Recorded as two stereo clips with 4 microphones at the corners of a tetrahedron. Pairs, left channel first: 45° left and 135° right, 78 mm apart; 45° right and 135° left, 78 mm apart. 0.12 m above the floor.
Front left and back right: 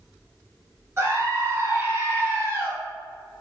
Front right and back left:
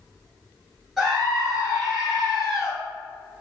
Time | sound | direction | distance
1.0 | a scream | 145° right | 1.5 m